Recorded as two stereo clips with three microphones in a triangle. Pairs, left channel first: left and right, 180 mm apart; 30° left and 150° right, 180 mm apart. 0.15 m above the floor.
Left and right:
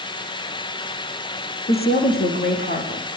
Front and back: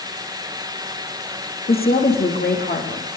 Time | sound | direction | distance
1.7 | a woman speaking | 60° left | 7.5 m